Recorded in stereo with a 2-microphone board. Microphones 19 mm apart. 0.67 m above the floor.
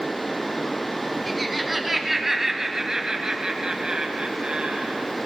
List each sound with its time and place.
1.3 s laughter: 5° right (ahead or behind), 4.5 m; by 5.1 s 75° right (ahead or behind), 4 m